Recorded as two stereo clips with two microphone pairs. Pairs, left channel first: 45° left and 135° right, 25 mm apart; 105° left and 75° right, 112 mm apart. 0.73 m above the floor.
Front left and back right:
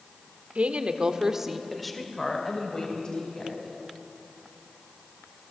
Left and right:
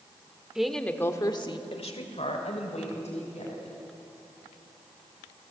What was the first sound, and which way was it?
A woman speaking, 160° right.